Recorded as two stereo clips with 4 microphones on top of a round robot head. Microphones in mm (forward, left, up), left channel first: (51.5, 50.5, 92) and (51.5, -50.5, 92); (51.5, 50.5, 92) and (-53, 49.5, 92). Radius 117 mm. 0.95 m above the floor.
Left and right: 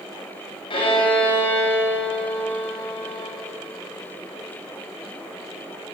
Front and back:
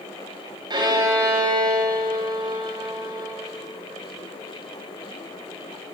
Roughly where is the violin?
Behind left.